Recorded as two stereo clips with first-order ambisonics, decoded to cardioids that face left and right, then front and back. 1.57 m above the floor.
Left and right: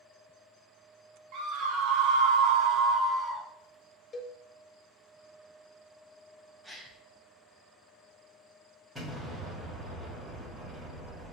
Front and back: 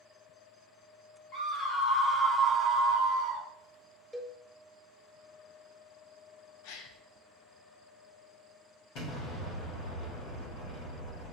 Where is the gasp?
Straight ahead, 0.6 m.